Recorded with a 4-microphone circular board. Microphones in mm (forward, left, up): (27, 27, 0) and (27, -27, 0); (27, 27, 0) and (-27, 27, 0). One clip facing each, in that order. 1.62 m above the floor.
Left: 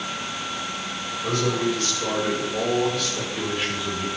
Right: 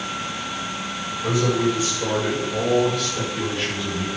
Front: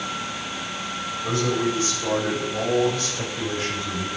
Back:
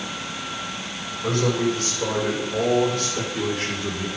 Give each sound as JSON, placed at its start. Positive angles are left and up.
{"t": 1.2, "sound": "a man speaking", "azimuth_deg": -170, "distance_m": 7.0}